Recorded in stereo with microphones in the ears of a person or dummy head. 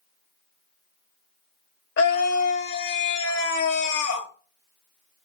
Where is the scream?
55° left (ahead or behind), 1.1 m.